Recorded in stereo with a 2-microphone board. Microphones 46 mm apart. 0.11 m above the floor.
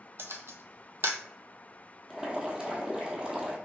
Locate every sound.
0.2 s a camera shutter: 70° right (ahead or behind), 0.6 m
2.1 s boiling: 15° right (ahead or behind), 1.1 m